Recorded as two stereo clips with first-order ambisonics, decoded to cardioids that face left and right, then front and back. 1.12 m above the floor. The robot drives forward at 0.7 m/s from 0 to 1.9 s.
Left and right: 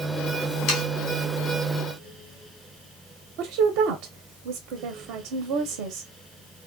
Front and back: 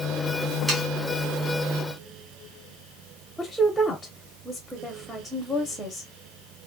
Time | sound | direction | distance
0.7 | sawing | 100° left | 1.6 m
3.4 | a woman speaking | 90° right | 0.5 m